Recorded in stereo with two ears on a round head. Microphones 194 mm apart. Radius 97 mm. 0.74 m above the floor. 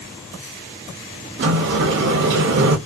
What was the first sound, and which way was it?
A sliding door, 55° right (ahead or behind).